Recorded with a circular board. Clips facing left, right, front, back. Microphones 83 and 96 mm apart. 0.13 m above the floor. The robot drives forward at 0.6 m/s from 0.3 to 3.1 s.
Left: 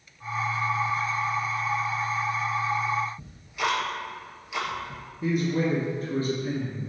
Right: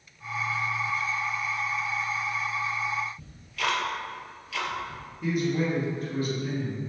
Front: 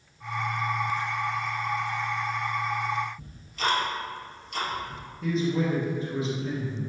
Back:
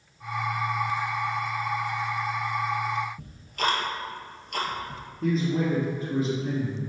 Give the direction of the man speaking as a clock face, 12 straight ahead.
7 o'clock.